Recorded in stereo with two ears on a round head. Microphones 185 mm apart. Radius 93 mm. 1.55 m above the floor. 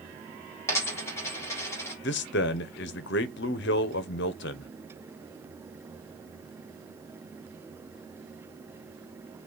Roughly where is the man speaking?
Left.